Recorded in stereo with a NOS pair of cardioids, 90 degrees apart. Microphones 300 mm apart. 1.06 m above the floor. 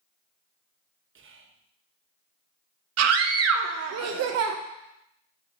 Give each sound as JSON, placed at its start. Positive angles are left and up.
{"t": 1.1, "sound": "whispering", "azimuth_deg": -45, "distance_m": 0.9}
{"t": 3.0, "sound": "a scream", "azimuth_deg": -60, "distance_m": 0.7}